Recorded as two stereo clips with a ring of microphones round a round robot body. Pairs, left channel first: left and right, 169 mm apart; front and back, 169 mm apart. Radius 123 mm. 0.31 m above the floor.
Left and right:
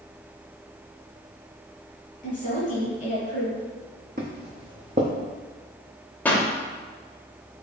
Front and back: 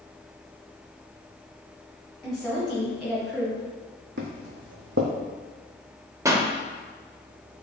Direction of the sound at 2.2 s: 85° left.